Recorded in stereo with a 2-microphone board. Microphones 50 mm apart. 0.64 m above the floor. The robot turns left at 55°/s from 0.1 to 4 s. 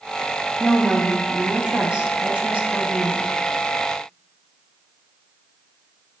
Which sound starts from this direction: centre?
A woman speaking, at 0.6 s.